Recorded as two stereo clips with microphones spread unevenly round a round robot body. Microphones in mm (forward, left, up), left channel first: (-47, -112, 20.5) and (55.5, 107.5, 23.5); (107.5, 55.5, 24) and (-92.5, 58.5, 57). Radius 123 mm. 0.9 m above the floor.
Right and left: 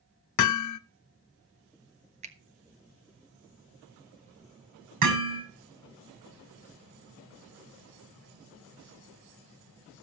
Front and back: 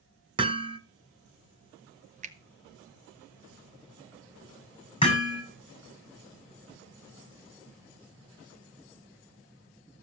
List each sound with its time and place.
0.4 s hammering: 110° right, 0.7 m
2.2 s a finger snap: 125° left, 1.2 m
5.0 s hammering: 65° left, 7 m